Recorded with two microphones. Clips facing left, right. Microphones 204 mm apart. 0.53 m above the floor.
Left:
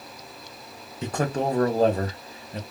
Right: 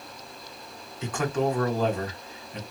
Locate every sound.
1.0 s a man speaking: 35° left (ahead or behind), 1.0 m